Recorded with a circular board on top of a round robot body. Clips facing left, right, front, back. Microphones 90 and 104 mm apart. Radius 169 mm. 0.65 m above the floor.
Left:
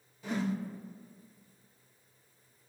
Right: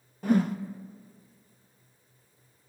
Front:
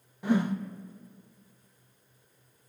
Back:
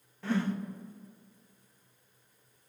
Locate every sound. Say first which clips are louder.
0.2 s a whoosh: right 9 dB, front 4 dB; 75° right, 0.9 m